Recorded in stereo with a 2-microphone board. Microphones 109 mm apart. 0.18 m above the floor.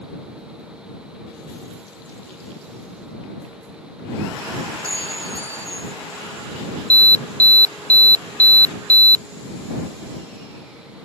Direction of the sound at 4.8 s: 75° left (ahead or behind).